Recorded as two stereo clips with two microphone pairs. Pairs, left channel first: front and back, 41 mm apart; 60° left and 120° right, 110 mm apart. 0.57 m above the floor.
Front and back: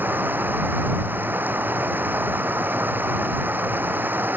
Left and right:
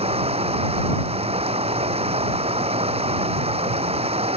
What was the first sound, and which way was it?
Running water, 145° right.